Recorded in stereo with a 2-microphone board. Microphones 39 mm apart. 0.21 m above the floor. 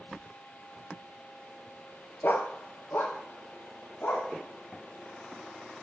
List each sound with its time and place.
2.2 s a dog barking: 70° left (ahead or behind), 0.8 m; by 4.3 s 75° left (ahead or behind), 4 m